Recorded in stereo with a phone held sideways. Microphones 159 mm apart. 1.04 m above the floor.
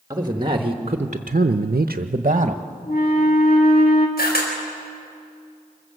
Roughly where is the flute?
Left.